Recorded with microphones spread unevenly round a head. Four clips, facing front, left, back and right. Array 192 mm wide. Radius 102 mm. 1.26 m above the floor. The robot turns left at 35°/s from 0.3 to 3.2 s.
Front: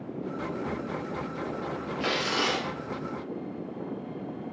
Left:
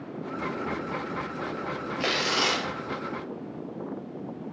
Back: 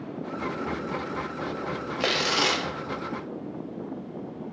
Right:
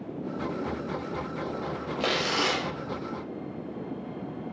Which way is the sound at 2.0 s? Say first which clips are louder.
Even, back 3 dB; 150° right.